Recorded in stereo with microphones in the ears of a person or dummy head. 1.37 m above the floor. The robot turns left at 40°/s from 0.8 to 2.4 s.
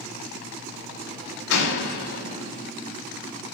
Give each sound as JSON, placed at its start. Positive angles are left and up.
{"t": 1.5, "sound": "a door slam", "azimuth_deg": 90, "distance_m": 1.7}